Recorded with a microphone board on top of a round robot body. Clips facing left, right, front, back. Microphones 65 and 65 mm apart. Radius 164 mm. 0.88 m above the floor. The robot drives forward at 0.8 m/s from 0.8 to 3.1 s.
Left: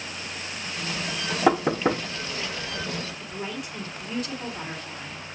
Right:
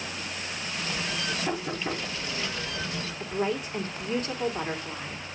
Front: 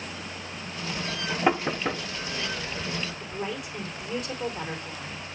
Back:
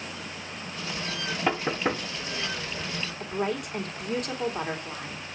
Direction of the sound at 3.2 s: 145° right.